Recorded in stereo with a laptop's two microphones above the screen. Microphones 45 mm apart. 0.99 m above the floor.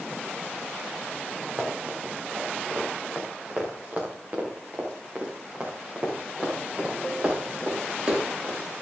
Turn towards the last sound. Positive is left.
turn(degrees=-30)  # may be behind; listen again after turning